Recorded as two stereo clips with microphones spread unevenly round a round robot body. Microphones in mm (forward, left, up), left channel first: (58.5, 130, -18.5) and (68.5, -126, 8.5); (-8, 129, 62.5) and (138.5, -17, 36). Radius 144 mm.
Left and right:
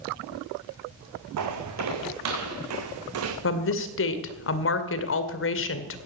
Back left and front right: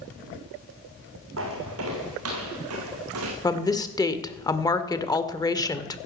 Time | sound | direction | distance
1.4 | footsteps | 90° right | 2.5 m
3.4 | a woman speaking | 60° left | 1.9 m